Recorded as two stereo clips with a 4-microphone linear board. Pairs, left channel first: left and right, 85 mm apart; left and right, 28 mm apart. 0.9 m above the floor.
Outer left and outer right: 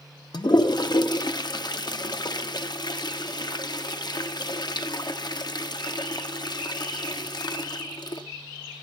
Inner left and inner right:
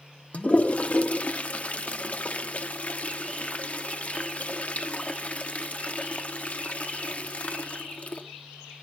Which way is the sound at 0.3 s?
55° left (ahead or behind).